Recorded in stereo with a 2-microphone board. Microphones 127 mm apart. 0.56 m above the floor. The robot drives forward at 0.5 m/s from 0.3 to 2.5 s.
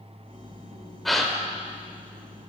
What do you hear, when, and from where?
1.1 s a gasp: centre (ahead or behind), 1.7 m